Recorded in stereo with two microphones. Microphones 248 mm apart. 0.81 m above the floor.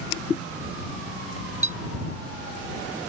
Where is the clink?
65° left (ahead or behind).